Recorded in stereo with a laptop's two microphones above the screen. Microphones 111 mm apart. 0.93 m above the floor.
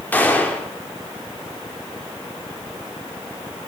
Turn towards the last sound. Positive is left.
turn(degrees=15)  # may be behind; listen again after turning